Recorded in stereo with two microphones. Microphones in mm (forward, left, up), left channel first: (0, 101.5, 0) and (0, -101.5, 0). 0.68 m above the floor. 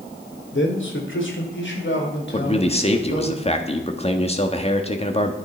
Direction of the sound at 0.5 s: 65° left (ahead or behind).